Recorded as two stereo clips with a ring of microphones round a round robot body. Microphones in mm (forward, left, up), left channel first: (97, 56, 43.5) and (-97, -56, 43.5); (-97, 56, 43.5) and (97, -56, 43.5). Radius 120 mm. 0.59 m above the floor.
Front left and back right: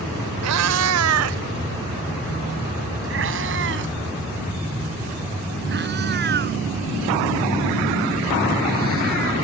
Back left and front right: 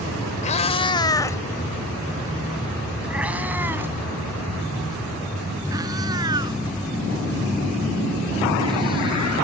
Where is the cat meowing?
150° right; by 9.3 s 100° right.